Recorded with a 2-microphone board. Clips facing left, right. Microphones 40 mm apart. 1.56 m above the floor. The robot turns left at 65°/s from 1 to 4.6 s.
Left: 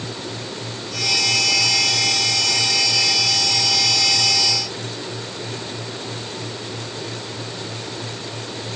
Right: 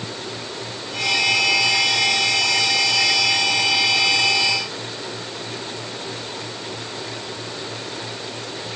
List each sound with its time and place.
Only background noise.